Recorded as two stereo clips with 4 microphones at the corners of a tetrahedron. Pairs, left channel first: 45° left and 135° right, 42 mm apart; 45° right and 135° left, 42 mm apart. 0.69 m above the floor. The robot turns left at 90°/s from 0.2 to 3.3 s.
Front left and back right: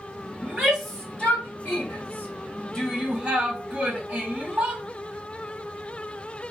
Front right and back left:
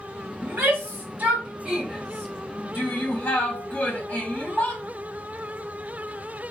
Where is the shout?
175° left, 2.5 m; by 4.8 s 85° right, 2.5 m.